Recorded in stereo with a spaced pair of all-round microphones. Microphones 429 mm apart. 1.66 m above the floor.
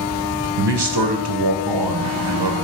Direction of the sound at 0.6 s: 65° right (ahead or behind).